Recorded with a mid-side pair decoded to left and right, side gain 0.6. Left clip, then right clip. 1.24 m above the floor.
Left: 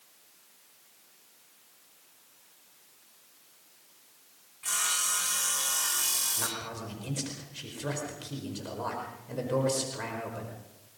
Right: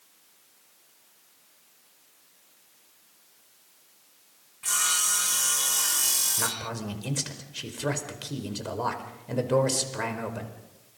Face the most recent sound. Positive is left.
turn(degrees=-35)